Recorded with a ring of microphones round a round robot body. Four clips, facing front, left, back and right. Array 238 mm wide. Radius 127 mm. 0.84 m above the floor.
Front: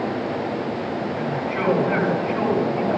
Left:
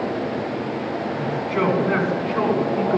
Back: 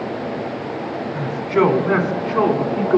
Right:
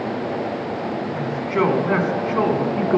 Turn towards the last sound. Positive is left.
turn(degrees=-145)